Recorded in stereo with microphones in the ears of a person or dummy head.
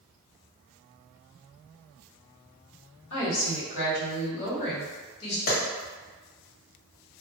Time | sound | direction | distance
3.1 | a woman speaking | 65° left (ahead or behind) | 1.9 m
5.5 | a clap | 60° left (ahead or behind) | 1.9 m